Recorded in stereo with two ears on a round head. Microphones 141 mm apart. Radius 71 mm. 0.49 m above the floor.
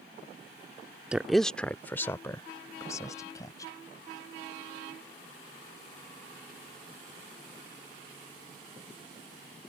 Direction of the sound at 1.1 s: 5° right (ahead or behind).